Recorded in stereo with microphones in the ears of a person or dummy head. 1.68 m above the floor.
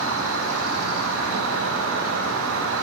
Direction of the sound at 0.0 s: 85° right.